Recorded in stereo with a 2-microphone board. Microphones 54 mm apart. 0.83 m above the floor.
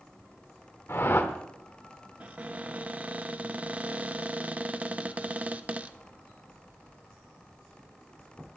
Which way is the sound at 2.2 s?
25° right (ahead or behind).